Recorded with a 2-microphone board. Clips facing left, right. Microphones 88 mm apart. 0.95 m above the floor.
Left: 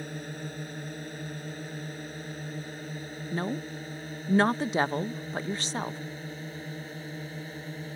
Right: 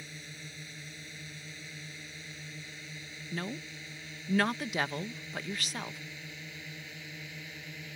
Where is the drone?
50° left (ahead or behind); by 8.0 s 35° left (ahead or behind).